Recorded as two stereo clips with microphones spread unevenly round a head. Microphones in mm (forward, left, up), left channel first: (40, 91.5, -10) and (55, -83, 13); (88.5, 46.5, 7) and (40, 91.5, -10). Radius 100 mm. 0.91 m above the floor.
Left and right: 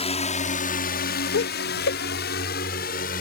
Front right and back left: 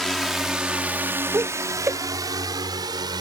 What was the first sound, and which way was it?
A drone, 45° left.